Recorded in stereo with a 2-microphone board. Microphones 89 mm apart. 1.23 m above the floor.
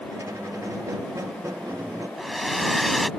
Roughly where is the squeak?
Right.